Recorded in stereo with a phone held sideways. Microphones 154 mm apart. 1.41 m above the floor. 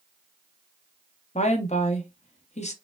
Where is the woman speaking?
50° left (ahead or behind), 0.8 m.